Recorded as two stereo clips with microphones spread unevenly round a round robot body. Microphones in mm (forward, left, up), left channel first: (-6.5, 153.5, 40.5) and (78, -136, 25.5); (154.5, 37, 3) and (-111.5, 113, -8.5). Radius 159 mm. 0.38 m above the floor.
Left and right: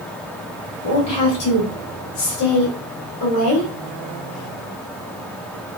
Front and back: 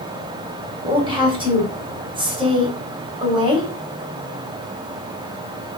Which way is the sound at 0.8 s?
100° left.